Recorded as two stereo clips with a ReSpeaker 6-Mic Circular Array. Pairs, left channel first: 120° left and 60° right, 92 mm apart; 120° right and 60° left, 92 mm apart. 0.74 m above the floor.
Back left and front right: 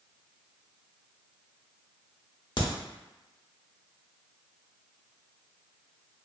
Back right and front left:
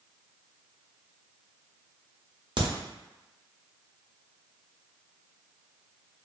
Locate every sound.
2.6 s a crack: 85° left, 0.7 m